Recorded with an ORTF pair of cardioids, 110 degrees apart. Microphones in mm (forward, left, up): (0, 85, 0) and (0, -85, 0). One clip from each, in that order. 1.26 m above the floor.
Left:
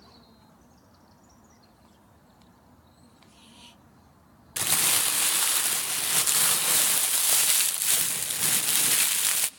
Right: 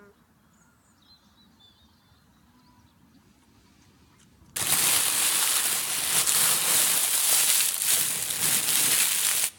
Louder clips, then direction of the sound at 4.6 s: Even; straight ahead.